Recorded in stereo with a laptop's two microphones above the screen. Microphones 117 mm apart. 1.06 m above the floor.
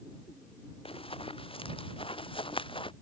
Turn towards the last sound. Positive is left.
turn(degrees=50)  # may be behind; listen again after turning